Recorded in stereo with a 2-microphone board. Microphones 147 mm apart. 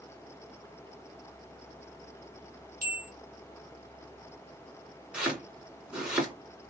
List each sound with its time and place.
2.8 s a bell: 80° right, 1.2 m
5.1 s chopping: 5° right (ahead or behind), 1.7 m